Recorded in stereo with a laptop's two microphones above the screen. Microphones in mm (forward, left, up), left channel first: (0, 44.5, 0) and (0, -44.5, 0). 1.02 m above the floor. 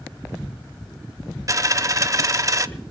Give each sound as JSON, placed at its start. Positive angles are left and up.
{"t": 1.5, "sound": "a dropped coin", "side_deg": -35, "distance_m": 0.6}